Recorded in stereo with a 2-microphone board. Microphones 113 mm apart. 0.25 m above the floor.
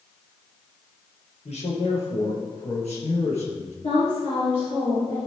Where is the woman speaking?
70° left (ahead or behind), 4 m.